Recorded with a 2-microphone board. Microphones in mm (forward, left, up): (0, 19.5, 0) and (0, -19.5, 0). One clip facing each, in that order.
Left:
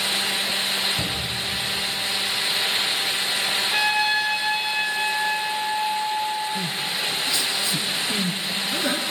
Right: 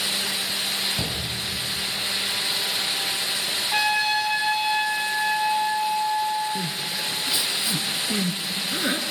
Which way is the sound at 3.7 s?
Centre (ahead or behind).